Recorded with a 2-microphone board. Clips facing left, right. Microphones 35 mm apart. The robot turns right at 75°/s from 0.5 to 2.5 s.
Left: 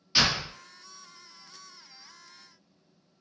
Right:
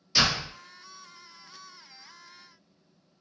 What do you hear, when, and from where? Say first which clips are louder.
0.1 s a door slam: even; 25° left (ahead or behind), 1.9 m